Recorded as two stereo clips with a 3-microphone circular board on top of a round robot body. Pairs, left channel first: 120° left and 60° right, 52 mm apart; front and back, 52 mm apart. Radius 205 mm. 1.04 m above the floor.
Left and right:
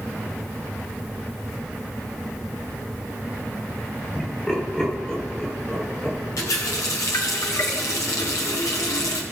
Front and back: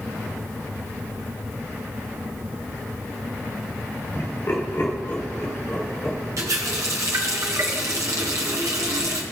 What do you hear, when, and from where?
4.2 s laughter: 40° left, 4 m; by 6.2 s 45° left, 6 m
6.4 s a running tap: 150° left, 0.6 m